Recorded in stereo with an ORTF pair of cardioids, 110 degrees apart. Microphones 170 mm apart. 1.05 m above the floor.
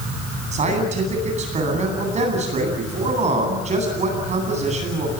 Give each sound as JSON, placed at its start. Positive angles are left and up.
{"t": 0.5, "sound": "a man speaking", "azimuth_deg": -45, "distance_m": 10.0}